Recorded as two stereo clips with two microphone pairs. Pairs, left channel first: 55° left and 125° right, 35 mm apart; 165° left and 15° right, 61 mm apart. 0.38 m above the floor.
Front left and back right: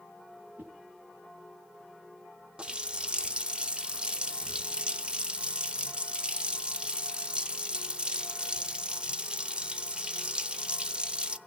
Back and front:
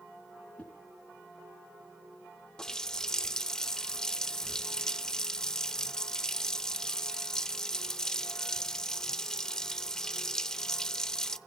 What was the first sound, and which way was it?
A whoosh, 130° right.